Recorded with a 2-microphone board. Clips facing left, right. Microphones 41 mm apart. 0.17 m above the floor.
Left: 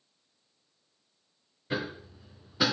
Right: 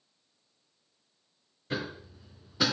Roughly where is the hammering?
Centre.